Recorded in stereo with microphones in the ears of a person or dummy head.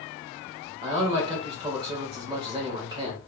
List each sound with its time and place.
0.8 s a man speaking: 25° right (ahead or behind), 1.6 m